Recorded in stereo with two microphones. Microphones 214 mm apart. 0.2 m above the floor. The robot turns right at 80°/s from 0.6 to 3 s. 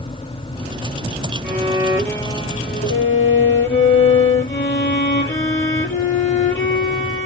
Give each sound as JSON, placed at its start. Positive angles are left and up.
{"t": 1.4, "sound": "a violin", "azimuth_deg": -50, "distance_m": 5.0}